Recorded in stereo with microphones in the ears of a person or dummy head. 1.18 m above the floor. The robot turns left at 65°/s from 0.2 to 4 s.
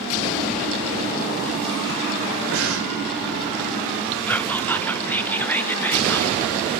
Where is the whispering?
5° left (ahead or behind), 0.7 m.